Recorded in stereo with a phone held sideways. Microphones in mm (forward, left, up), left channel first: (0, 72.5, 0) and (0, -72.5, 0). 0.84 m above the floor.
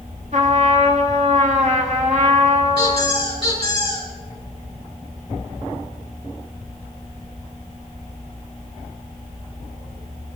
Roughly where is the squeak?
Left.